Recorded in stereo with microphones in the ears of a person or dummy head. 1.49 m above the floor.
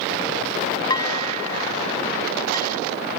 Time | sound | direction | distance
0.9 | dishes clattering | 30° left (ahead or behind) | ?